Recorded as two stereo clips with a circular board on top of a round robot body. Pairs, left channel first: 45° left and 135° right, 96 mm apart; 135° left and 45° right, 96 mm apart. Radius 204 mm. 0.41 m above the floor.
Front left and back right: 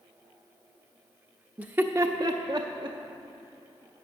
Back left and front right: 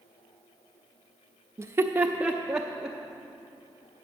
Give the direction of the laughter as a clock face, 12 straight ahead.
2 o'clock.